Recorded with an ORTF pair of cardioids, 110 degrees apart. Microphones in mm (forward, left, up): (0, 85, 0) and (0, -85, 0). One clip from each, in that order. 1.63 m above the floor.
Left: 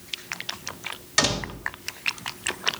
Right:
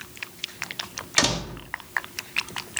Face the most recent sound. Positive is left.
turn(degrees=-15)